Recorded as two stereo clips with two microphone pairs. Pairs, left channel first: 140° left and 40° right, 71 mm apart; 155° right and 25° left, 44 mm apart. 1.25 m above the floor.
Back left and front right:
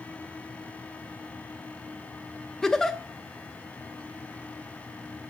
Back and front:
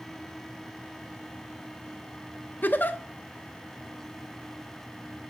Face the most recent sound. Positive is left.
turn(degrees=-140)